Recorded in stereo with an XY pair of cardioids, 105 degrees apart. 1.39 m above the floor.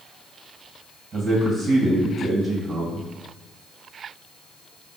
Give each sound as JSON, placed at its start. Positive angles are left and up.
{"t": 1.1, "sound": "a man speaking", "azimuth_deg": -45, "distance_m": 1.7}